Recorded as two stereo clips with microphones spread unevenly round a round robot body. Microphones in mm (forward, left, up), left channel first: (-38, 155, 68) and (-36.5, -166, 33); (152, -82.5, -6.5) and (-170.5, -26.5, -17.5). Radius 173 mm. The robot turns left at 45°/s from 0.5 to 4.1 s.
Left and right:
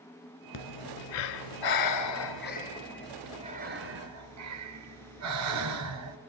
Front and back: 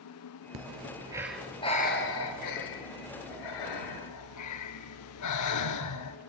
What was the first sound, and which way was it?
Breathing, 115° left.